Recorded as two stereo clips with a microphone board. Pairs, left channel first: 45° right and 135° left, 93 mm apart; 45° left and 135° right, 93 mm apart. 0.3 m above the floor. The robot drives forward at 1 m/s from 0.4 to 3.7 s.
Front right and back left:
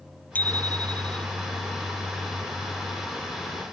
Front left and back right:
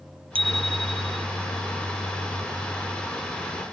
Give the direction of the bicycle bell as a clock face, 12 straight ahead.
4 o'clock.